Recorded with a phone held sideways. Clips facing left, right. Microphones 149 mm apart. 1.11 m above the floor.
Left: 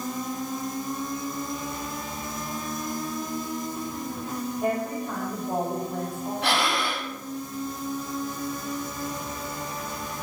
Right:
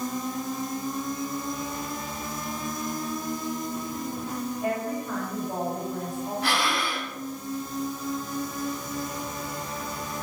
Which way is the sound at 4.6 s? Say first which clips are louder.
Left 3 dB; 80° left.